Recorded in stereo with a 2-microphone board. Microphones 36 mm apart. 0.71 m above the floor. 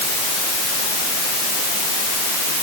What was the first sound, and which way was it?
Only background noise.